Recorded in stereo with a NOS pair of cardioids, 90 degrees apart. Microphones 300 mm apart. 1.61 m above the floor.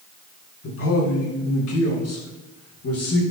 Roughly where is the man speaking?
Ahead left.